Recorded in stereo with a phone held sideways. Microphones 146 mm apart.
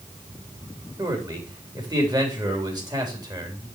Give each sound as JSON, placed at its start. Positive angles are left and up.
{"t": 1.0, "sound": "a man speaking", "side_deg": -25, "distance_m": 3.5}